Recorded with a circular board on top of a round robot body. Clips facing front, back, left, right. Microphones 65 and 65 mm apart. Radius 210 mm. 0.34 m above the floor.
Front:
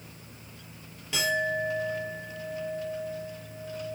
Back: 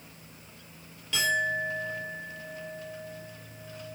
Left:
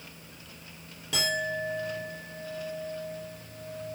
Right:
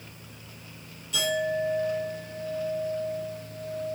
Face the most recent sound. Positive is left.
turn(degrees=70)